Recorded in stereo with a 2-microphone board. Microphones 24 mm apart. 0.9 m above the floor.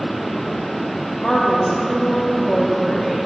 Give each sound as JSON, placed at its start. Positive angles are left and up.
{"t": 1.2, "sound": "a woman speaking", "side_deg": 30, "distance_m": 1.7}